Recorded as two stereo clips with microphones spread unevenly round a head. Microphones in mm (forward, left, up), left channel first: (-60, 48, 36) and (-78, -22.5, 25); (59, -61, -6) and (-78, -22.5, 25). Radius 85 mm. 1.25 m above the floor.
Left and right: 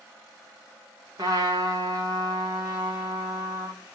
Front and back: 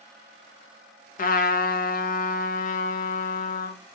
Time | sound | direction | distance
1.2 | a trumpet | 45° right | 1.1 m